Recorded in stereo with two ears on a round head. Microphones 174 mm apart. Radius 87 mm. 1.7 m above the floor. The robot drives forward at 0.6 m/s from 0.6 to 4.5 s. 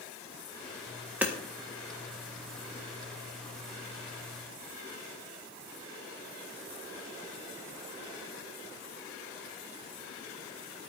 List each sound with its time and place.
1.2 s hammering: 10° right (ahead or behind), 1.6 m